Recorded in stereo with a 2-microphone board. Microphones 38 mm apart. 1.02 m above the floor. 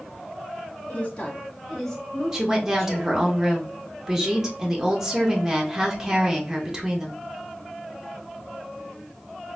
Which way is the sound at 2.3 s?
15° right (ahead or behind).